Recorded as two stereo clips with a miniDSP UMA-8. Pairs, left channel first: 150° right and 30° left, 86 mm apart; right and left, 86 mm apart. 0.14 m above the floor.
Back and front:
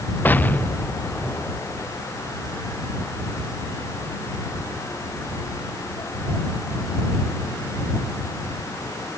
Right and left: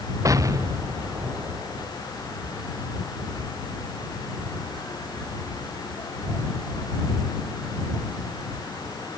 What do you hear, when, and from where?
0.2 s an explosion: 140° left